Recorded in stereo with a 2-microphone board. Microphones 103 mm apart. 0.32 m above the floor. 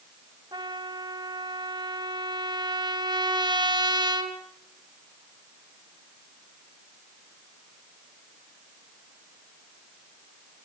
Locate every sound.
0.5 s a trumpet: 45° right (ahead or behind), 2 m